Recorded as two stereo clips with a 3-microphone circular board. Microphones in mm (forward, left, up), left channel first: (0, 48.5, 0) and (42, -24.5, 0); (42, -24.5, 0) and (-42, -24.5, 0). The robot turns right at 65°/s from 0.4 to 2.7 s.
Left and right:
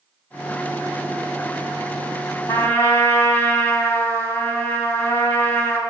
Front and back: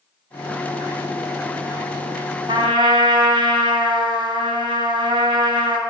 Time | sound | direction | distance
2.5 | a trumpet | 170° left | 2 m